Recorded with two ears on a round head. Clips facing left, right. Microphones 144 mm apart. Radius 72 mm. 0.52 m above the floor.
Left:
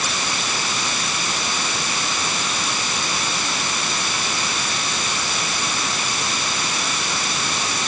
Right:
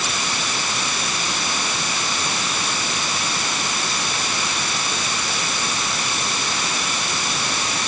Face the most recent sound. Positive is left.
No sound to turn to.